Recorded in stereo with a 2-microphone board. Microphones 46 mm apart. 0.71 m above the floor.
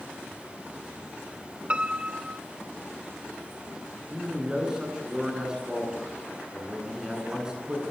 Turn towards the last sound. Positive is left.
turn(degrees=-15)  # may be behind; listen again after turning